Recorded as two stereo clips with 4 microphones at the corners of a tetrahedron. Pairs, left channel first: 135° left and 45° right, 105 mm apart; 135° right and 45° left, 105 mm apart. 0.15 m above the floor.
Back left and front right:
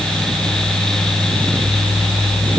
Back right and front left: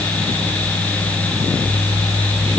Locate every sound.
Only background noise.